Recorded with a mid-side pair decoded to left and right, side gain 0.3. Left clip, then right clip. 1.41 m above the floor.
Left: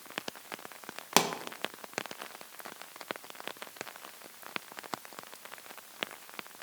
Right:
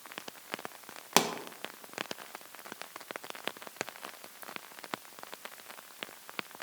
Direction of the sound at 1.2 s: Straight ahead.